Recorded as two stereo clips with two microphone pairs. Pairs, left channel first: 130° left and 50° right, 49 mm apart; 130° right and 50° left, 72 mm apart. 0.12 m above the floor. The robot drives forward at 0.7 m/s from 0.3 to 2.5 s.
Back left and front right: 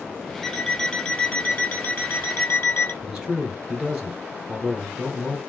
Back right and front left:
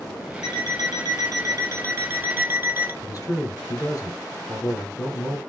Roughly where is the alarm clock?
Ahead left.